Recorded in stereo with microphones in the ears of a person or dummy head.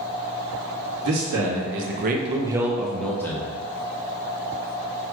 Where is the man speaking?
75° right (ahead or behind), 1.2 m; by 3.5 s 15° left (ahead or behind), 1.4 m.